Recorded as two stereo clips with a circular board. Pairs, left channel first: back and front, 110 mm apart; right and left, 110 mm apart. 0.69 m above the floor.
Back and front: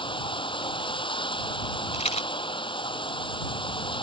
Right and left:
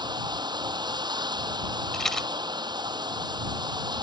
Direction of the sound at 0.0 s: 140° left.